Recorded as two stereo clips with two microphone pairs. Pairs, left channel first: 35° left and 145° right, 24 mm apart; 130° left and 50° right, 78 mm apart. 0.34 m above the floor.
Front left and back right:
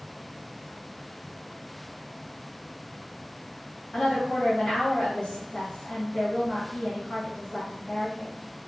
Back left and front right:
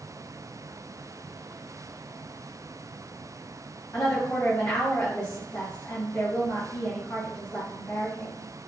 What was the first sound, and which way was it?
A woman speaking, 65° left.